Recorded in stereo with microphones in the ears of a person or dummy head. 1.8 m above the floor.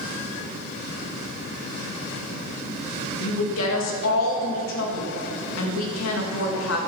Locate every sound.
3.2 s a woman speaking: 85° left, 3 m